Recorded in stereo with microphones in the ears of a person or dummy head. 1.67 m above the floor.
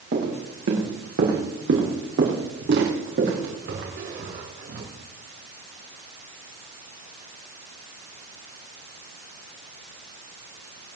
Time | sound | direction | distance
0.1 | footsteps | 65° right (ahead or behind) | 3.5 m